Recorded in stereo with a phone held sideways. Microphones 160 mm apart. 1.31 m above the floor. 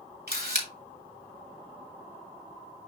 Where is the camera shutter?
80° right, 2.5 m.